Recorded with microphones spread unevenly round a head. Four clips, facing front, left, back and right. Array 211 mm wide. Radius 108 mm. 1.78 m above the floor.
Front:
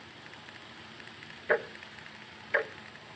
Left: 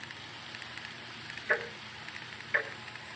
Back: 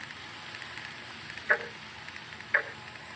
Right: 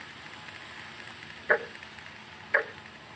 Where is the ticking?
55° right, 1.1 m.